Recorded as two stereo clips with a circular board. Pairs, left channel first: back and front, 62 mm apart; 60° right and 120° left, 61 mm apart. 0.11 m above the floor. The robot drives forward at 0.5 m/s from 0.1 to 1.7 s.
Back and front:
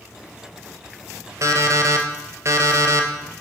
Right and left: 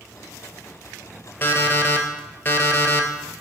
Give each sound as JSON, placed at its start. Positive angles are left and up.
{"t": 1.4, "sound": "an alarm clock", "azimuth_deg": -10, "distance_m": 1.0}